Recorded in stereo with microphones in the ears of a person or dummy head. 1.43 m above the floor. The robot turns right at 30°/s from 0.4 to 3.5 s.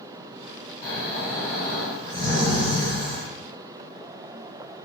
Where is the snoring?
155° left, 1.6 m; by 3.3 s 130° right, 1.6 m.